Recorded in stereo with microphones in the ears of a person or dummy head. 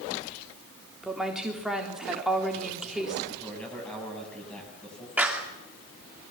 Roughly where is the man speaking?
Centre.